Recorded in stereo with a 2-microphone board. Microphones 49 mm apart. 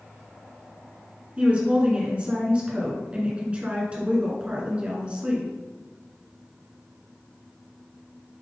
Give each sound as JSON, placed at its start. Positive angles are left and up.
{"t": 1.4, "sound": "a woman speaking", "side_deg": -25, "distance_m": 1.8}